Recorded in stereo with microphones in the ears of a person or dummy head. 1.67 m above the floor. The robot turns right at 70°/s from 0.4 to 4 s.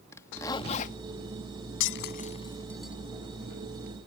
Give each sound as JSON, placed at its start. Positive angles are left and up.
{"t": 0.1, "sound": "a zipper", "azimuth_deg": 15}
{"t": 1.8, "sound": "breaking glass", "side_deg": 70}